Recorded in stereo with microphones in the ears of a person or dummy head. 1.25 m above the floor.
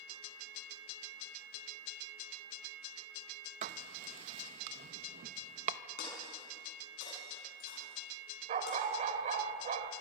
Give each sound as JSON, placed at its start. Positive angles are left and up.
{"t": 3.6, "sound": "writing", "side_deg": -45, "distance_m": 0.8}
{"t": 6.0, "sound": "breaking glass", "side_deg": 55, "distance_m": 6.5}
{"t": 8.5, "sound": "a dog barking", "side_deg": -45, "distance_m": 1.7}